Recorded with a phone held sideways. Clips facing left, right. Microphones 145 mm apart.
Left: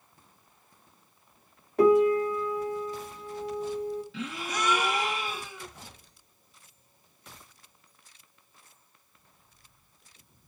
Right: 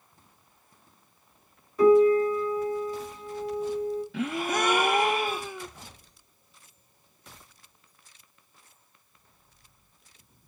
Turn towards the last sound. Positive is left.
turn(degrees=-55)  # may be behind; listen again after turning